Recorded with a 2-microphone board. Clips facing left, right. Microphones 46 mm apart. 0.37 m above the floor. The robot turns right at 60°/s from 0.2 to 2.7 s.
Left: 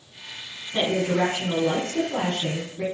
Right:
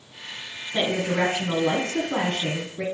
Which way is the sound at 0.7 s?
Straight behind.